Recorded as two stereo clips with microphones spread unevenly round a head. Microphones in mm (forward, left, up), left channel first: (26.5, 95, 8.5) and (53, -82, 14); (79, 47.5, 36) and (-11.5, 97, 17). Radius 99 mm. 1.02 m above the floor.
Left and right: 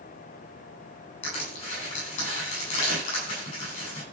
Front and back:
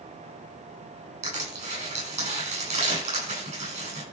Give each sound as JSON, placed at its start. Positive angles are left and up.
{"t": 1.2, "sound": "crushing", "azimuth_deg": 155, "distance_m": 10.0}